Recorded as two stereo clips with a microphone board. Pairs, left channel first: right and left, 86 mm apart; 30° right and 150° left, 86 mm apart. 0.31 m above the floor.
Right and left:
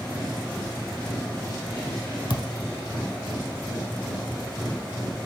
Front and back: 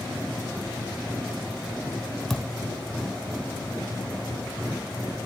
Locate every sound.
2.3 s a thud: 115° right, 0.5 m